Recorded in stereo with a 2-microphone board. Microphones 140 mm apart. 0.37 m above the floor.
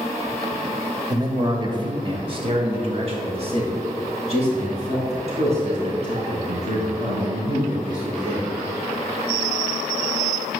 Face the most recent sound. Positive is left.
turn(degrees=-50)  # may be behind; listen again after turning